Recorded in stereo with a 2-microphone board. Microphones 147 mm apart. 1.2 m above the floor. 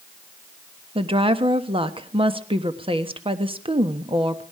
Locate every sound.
0.9 s a woman speaking: 35° right (ahead or behind), 1.3 m